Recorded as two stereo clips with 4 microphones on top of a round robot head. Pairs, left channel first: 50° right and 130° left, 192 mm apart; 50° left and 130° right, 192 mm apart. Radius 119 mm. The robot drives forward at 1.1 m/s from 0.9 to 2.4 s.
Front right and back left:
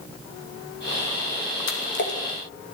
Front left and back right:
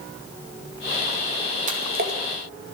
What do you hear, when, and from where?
1.7 s a splash: 80° right, 2.5 m; by 2.2 s 90° right, 2.5 m